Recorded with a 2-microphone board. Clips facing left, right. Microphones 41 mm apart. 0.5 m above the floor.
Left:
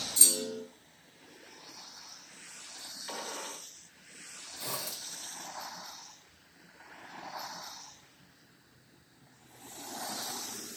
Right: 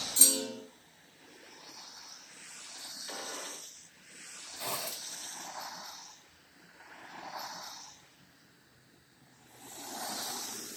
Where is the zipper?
45° right (ahead or behind), 2 m.